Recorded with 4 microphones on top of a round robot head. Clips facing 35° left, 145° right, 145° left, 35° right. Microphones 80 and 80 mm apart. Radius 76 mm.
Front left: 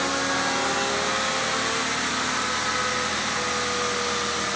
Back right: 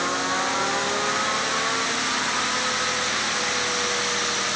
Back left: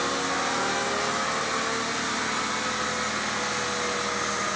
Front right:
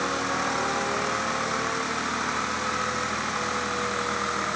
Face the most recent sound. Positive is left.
No sound to turn to.